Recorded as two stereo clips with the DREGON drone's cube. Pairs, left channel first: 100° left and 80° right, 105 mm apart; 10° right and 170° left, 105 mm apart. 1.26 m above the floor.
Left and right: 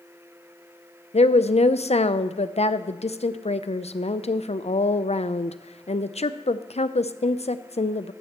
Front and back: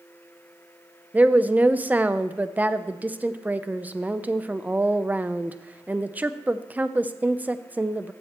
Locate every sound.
1.1 s a woman speaking: 95° left, 0.6 m